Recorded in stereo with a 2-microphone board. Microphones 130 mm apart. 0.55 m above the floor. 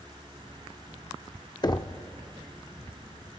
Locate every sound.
1.6 s knocking: 35° left (ahead or behind), 0.7 m